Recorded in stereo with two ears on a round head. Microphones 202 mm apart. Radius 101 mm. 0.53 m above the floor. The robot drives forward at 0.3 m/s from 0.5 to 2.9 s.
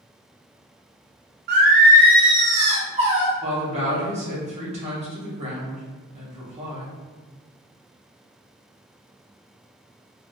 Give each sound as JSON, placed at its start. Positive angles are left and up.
{"t": 1.5, "sound": "singing", "side_deg": -45, "distance_m": 0.6}
{"t": 3.4, "sound": "a woman speaking", "side_deg": -30, "distance_m": 0.9}